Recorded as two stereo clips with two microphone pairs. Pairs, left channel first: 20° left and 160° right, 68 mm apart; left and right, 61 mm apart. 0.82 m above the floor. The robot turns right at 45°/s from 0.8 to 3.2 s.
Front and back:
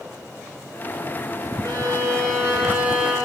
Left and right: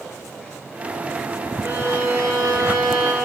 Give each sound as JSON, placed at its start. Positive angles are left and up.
{"t": 1.6, "sound": "a violin", "azimuth_deg": -145, "distance_m": 7.5}